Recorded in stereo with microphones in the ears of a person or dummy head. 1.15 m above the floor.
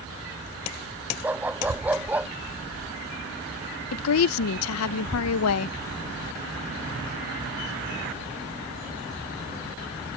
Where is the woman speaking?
80° left.